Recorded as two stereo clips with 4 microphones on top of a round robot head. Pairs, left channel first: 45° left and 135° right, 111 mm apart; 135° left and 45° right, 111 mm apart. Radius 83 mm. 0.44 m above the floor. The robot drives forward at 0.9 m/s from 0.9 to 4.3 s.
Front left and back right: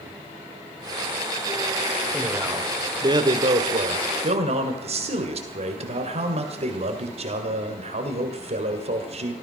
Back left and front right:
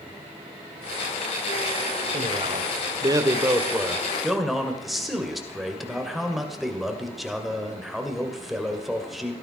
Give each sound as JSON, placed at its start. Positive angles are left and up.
{"t": 2.1, "sound": "a man speaking", "azimuth_deg": -60, "distance_m": 1.6}